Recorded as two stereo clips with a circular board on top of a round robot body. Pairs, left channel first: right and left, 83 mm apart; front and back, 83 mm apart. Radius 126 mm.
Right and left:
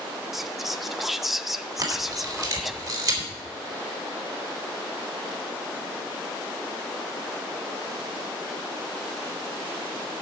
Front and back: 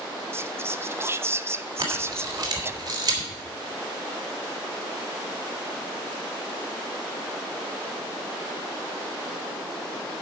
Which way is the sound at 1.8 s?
135° left.